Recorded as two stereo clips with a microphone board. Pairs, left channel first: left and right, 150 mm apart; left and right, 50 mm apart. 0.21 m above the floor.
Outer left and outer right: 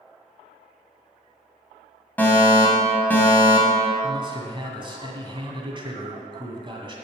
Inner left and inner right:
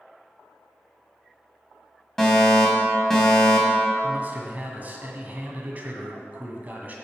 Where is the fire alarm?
10° left (ahead or behind), 2.5 m.